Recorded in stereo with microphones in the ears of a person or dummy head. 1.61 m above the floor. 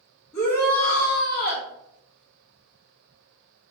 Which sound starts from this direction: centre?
A shout, at 0.3 s.